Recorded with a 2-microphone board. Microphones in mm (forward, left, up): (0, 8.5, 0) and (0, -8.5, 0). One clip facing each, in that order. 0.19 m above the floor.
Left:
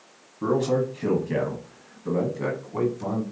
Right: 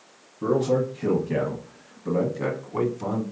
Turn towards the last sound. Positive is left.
turn(degrees=-20)  # may be behind; listen again after turning